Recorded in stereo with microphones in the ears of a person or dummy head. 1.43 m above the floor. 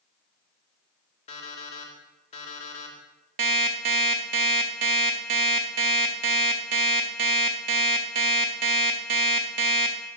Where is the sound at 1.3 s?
35° left (ahead or behind), 1.6 m.